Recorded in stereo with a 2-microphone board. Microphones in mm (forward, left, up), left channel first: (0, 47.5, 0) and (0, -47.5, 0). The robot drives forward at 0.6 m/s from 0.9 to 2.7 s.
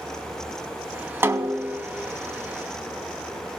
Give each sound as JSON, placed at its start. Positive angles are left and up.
{"t": 1.2, "sound": "a snare drum", "side_deg": -25, "distance_m": 0.6}